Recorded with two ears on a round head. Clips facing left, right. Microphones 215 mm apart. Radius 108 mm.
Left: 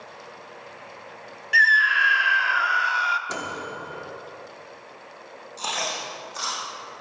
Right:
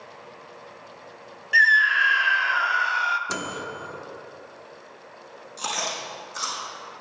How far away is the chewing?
About 5 m.